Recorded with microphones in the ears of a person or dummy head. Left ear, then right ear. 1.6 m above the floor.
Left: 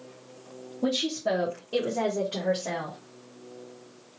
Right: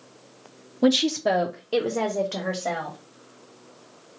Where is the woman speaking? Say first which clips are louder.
Right 6 dB; 60° right (ahead or behind), 0.5 m; by 3.0 s 40° right (ahead or behind), 1.3 m.